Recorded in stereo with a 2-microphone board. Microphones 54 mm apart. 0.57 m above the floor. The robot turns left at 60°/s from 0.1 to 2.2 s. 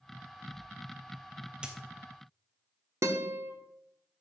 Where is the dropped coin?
20° right (ahead or behind), 1.5 m; by 1.8 s 25° right (ahead or behind), 1.5 m.